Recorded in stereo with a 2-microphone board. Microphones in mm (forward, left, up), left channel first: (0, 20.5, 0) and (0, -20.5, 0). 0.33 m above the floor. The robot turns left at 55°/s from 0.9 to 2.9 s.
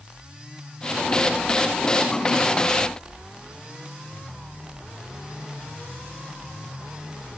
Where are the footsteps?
No footsteps in this recording.